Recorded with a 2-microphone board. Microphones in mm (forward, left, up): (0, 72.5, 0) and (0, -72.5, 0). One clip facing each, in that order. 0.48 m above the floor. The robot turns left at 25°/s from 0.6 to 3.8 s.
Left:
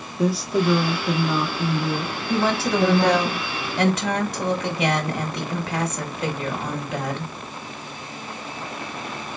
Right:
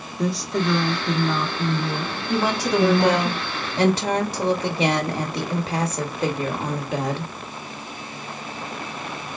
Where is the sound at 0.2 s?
5° left (ahead or behind), 1.0 m; by 3.3 s 20° right (ahead or behind), 1.0 m.